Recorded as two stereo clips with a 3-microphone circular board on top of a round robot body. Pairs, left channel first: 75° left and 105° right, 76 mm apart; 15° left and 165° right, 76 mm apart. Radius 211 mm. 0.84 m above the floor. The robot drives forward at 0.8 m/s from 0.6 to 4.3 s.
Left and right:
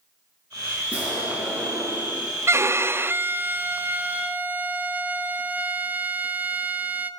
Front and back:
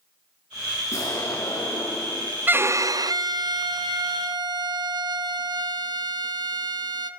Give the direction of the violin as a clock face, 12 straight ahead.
4 o'clock.